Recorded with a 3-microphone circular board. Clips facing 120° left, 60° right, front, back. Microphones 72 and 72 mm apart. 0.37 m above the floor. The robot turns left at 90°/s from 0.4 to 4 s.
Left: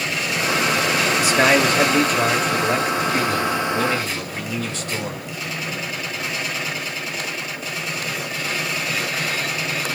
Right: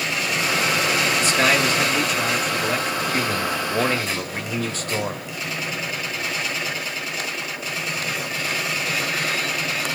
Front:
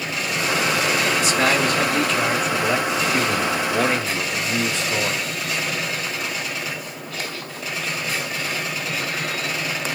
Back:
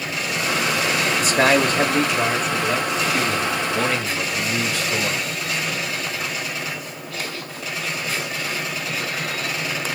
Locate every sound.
1.2 s a man speaking: 160° right, 1.3 m; by 5.2 s 55° right, 1.3 m